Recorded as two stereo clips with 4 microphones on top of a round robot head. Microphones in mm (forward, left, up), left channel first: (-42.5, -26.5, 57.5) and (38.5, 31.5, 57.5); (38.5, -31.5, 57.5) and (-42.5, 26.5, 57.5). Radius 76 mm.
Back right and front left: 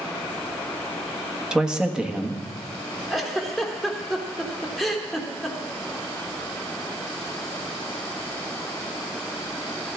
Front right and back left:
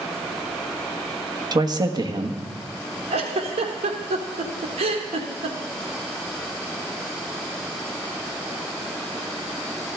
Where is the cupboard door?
I don't hear a cupboard door.